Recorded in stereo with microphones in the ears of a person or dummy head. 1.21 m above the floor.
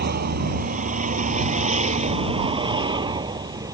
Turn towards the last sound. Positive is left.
turn(degrees=-20)  # may be behind; listen again after turning